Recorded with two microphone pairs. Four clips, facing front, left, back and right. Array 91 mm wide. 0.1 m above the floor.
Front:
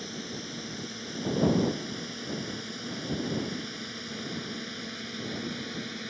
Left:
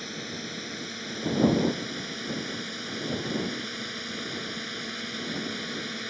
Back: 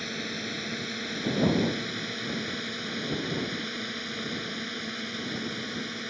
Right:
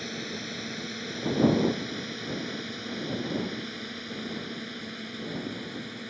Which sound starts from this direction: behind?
A drone, at 0.0 s.